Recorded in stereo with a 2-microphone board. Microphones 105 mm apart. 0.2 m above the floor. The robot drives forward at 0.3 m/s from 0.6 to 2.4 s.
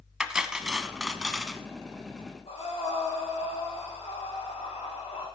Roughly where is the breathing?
Left.